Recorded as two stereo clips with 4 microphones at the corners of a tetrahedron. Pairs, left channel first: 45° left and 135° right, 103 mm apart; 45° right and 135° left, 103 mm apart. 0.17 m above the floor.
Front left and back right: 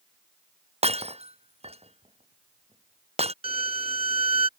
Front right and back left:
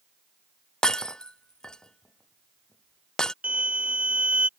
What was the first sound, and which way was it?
Breaking glass, 130° right.